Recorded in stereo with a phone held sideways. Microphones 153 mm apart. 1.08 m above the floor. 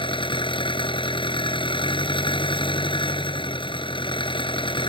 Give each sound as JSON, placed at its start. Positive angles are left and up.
{"t": 0.0, "sound": "an engine running", "side_deg": 30}